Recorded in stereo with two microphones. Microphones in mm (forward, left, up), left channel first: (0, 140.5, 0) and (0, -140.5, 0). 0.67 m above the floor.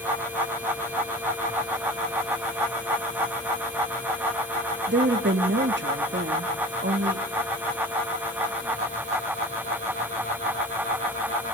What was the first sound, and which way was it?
A woman speaking, 40° right (ahead or behind).